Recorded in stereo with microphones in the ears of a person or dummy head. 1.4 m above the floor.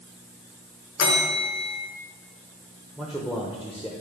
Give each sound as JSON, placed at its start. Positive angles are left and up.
{"t": 1.0, "sound": "a bell", "side_deg": 60, "distance_m": 1.5}
{"t": 3.0, "sound": "a man speaking", "side_deg": 0, "distance_m": 0.7}